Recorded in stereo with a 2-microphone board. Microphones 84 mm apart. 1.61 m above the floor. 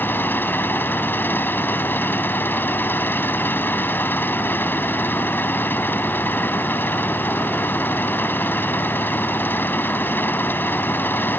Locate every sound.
0.0 s an engine running: 25° left (ahead or behind)